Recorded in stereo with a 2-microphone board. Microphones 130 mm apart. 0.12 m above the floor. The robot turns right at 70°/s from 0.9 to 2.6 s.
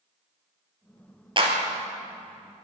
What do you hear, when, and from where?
1.4 s a clap: 40° right (ahead or behind), 2.0 m; by 1.6 s 30° right (ahead or behind), 2.0 m